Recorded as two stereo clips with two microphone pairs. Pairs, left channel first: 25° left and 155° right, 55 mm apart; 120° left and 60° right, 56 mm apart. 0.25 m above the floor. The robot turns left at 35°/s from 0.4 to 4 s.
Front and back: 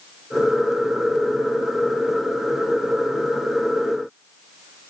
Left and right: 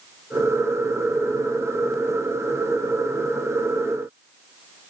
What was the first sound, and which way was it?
Only background noise.